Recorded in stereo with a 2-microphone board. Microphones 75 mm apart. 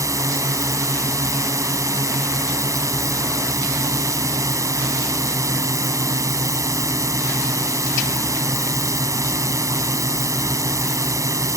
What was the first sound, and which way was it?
A drone, 50° right (ahead or behind).